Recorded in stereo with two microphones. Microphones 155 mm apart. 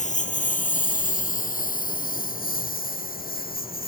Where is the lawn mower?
50° left (ahead or behind); by 3.9 s 70° left (ahead or behind).